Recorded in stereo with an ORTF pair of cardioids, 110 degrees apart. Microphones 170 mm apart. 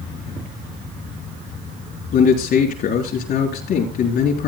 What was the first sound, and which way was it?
A man speaking, 65° left.